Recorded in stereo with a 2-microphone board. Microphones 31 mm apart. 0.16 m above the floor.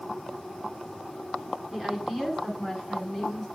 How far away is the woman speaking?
About 1.5 m.